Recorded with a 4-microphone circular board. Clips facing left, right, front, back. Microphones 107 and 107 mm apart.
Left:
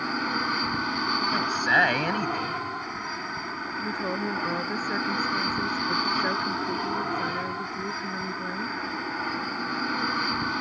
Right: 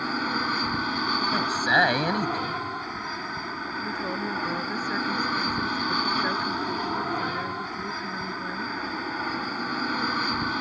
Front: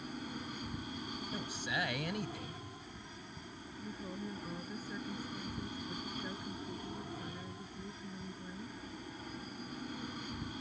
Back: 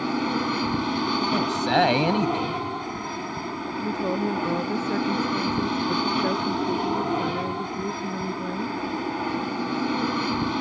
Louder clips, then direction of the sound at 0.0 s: Right 1 dB, back 19 dB; straight behind.